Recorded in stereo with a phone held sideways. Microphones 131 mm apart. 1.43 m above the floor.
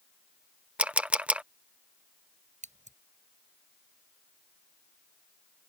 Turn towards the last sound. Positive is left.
turn(degrees=-65)  # may be behind; listen again after turning